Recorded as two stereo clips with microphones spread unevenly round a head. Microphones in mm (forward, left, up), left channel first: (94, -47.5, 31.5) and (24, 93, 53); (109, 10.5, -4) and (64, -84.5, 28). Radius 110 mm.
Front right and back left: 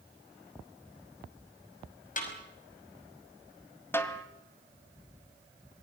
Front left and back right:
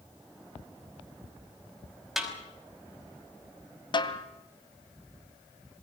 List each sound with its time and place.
2.2 s a snare drum: 30° right, 5.5 m
3.9 s a snare drum: 15° left, 2.5 m